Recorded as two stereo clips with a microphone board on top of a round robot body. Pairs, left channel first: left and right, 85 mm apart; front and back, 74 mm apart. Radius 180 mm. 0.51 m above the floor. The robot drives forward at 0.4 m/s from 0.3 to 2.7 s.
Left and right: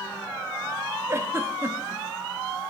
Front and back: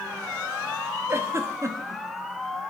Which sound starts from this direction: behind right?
A giggle, at 1.1 s.